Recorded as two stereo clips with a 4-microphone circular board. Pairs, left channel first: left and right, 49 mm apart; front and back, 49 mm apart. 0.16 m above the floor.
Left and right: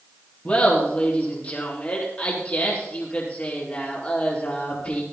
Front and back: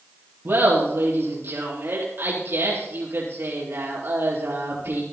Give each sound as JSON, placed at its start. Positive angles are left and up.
{"t": 0.5, "sound": "laughter", "azimuth_deg": 145, "distance_m": 3.5}